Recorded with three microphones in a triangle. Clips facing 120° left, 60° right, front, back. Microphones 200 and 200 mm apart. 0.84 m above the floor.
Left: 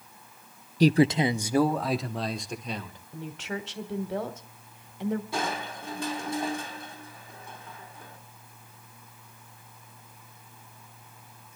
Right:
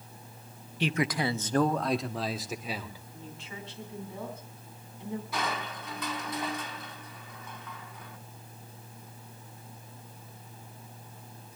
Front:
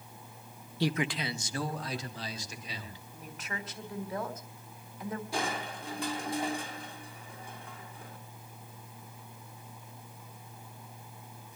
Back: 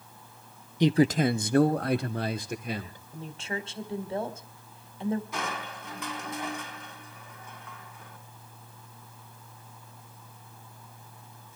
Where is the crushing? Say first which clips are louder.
Left 2 dB, front 1 dB; 60° left, 4 m.